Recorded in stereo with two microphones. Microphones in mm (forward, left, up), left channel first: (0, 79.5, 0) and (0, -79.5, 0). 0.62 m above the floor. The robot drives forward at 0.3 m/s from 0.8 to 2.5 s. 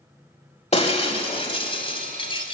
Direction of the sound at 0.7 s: 40° left (ahead or behind).